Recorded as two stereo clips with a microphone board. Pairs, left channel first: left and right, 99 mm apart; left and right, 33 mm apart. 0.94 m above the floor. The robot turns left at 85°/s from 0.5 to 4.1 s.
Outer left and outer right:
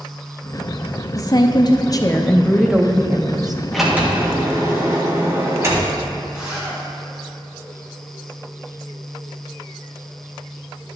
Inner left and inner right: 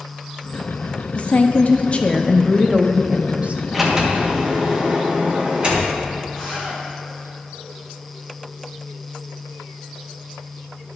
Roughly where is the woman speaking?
Behind left.